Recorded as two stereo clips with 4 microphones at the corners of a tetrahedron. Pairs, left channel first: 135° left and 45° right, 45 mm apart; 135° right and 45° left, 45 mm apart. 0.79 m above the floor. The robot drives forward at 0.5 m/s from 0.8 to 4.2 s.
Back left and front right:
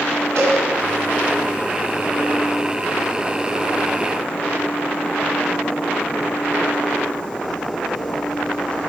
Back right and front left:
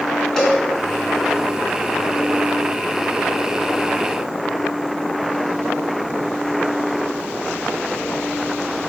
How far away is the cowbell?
About 3.5 m.